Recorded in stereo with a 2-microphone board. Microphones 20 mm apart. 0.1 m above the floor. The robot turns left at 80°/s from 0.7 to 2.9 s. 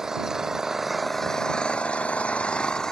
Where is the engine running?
155° right; by 2.9 s 30° left.